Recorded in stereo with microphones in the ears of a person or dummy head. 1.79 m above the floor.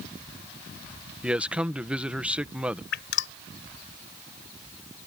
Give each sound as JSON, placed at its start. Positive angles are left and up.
{"t": 1.2, "sound": "a man speaking", "side_deg": -5}
{"t": 2.9, "sound": "dripping", "side_deg": 75}